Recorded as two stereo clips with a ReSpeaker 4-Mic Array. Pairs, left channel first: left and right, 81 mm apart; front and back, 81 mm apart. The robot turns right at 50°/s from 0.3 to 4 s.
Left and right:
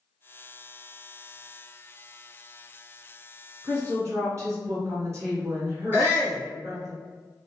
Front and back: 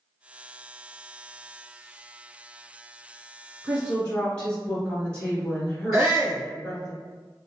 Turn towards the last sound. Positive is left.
turn(degrees=110)